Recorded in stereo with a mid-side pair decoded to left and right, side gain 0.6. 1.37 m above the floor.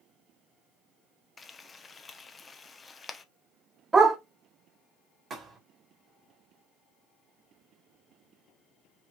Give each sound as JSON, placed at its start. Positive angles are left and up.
{"t": 1.4, "sound": "frying", "azimuth_deg": 25, "distance_m": 0.8}
{"t": 3.9, "sound": "a dog barking", "azimuth_deg": -20, "distance_m": 2.5}
{"t": 5.3, "sound": "a thud", "azimuth_deg": -30, "distance_m": 2.5}